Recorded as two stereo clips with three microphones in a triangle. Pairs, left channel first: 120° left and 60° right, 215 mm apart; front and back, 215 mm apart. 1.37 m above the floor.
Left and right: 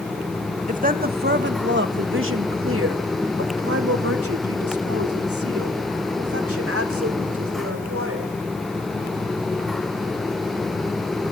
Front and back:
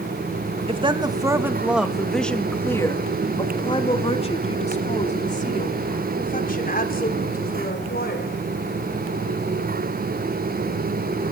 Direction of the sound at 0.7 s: 115° right.